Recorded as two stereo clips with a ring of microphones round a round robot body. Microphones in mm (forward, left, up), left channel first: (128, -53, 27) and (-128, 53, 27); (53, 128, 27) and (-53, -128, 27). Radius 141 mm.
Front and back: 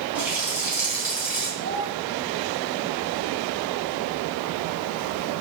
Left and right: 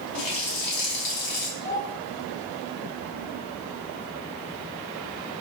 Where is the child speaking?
125° left, 3.5 m.